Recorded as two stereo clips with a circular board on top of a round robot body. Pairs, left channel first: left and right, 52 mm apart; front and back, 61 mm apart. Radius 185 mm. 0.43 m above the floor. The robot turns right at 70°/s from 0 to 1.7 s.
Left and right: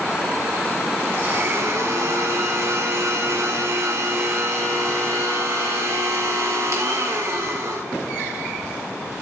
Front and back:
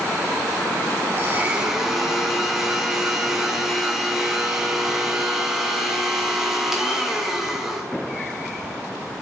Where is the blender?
135° right, 1.7 m; by 7.8 s 95° right, 1.7 m.